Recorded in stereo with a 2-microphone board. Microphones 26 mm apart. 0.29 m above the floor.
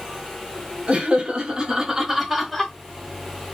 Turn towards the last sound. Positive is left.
turn(degrees=10)  # may be behind; listen again after turning